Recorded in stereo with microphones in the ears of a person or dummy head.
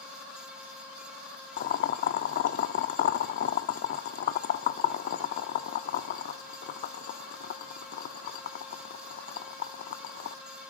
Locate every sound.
1.6 s boiling: 60° left (ahead or behind), 1.4 m